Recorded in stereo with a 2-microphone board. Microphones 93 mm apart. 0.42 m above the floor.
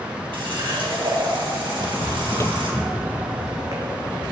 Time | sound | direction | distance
0.3 | a running tap | 70° right (ahead or behind) | 2.5 m
1.7 | footsteps | 70° left (ahead or behind) | 0.9 m